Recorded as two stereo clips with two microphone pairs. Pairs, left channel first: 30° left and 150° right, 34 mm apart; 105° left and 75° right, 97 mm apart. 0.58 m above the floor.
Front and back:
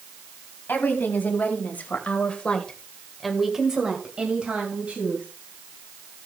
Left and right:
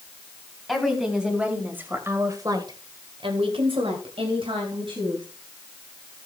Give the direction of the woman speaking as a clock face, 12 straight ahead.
11 o'clock.